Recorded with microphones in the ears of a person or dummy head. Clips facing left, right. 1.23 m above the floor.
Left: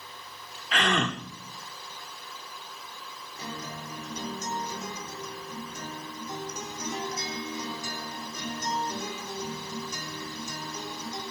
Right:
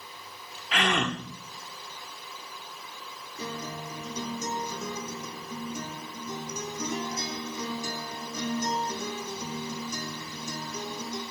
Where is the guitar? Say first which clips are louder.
Right 3 dB; 70° right (ahead or behind), 4 m.